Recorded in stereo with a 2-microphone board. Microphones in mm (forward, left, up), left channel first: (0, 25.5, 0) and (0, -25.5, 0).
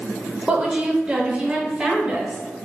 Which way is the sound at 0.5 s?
20° right (ahead or behind).